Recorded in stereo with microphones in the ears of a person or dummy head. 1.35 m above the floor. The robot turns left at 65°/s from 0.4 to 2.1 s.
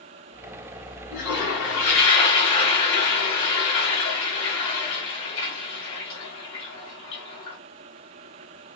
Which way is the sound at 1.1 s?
110° left.